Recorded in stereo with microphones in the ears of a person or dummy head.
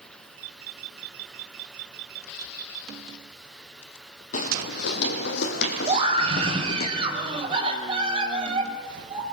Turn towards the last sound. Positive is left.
turn(degrees=-30)  # may be behind; listen again after turning